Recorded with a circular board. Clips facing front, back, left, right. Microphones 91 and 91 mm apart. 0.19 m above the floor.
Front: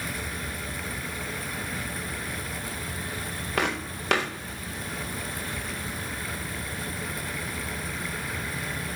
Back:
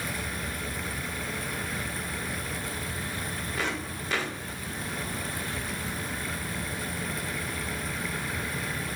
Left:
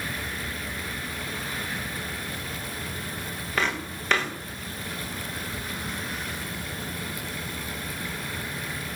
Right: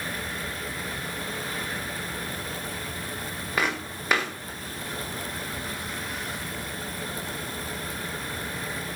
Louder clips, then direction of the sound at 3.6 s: Front 6 dB, even; 10° right.